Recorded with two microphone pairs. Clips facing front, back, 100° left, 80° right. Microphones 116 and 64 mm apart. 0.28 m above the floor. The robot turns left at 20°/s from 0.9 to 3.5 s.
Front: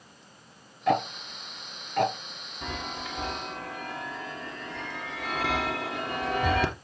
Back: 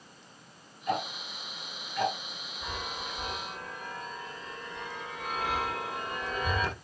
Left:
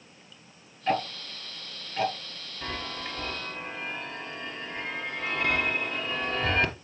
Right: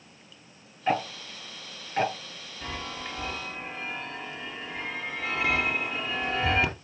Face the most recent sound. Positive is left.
turn(degrees=5)